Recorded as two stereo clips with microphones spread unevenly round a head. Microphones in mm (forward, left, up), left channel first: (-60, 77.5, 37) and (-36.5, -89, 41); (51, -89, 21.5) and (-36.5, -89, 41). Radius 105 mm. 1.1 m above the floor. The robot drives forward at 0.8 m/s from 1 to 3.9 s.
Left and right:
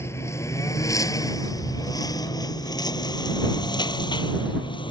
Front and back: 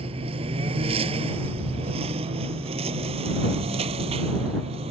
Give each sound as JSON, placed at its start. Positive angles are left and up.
{"t": 0.0, "sound": "a lawn mower", "azimuth_deg": 175}